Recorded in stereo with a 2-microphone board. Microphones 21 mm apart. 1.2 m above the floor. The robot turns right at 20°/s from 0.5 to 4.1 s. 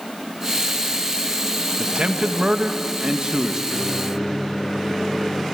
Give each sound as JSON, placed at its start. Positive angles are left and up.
{"t": 1.8, "sound": "a man speaking", "azimuth_deg": -75, "distance_m": 1.4}
{"t": 3.7, "sound": "a microwave", "side_deg": 20, "distance_m": 2.5}